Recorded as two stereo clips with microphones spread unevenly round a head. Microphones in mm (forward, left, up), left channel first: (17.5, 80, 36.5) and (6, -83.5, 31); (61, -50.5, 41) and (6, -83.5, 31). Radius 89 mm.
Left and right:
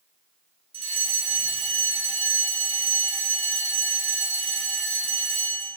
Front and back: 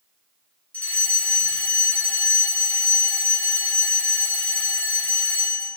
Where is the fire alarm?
40° right, 7.5 m.